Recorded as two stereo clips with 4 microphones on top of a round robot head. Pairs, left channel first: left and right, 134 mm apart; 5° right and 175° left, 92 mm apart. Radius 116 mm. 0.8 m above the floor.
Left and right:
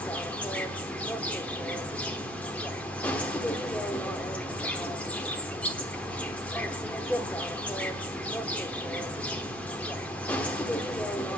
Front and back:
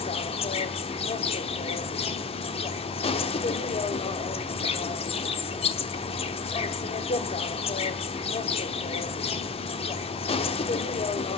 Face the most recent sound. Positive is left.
turn(degrees=5)